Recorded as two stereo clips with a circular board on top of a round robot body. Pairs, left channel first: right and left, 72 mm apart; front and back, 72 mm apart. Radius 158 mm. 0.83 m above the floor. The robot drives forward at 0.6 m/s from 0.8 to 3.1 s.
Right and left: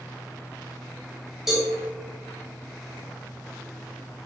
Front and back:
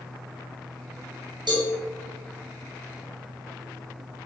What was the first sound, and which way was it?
A cowbell, 175° left.